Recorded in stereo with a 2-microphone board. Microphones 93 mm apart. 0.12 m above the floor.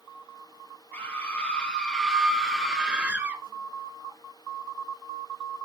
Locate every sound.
0.9 s a scream: 20° left (ahead or behind), 3 m; by 3.4 s 20° right (ahead or behind), 2.5 m